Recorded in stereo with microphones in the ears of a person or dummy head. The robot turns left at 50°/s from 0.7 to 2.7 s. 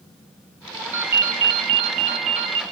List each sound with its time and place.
0.9 s a ringtone: 35° right, 0.6 m; by 2.6 s 115° right, 0.6 m